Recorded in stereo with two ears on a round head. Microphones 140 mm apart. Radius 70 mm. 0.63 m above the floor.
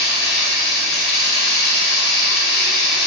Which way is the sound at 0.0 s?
70° left (ahead or behind).